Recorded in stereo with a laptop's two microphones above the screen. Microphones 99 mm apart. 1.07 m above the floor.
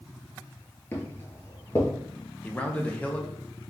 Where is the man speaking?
15° left (ahead or behind), 0.6 m.